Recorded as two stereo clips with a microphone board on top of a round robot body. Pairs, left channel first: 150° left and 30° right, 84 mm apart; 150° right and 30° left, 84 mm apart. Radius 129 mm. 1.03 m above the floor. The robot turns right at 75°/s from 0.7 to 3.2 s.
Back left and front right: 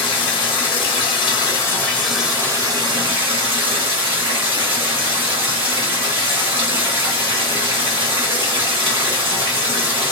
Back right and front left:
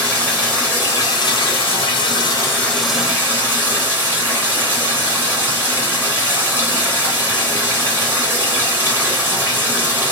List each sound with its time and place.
0.0 s running water: 140° left, 1.1 m; by 10.1 s 35° right, 1.1 m